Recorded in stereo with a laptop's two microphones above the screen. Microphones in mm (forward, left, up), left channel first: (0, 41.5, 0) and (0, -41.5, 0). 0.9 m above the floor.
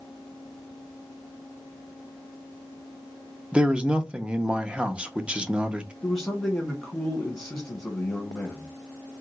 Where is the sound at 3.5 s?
15° right (ahead or behind), 0.7 m.